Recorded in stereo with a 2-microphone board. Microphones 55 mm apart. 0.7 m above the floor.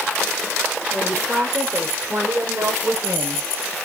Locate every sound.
0.9 s a woman speaking: 30° right (ahead or behind), 3 m; by 3.8 s 75° right (ahead or behind), 4 m